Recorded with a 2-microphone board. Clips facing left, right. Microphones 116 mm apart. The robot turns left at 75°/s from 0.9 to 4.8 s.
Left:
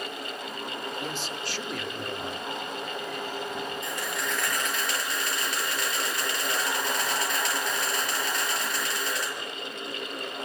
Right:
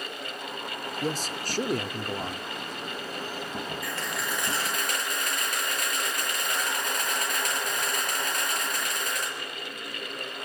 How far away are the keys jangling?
I don't hear keys jangling.